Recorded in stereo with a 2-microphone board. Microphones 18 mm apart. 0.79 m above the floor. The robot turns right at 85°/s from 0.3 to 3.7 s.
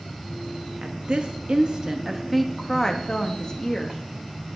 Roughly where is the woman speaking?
Right.